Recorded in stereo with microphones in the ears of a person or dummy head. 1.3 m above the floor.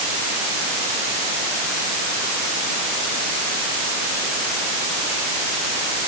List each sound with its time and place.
Only background noise.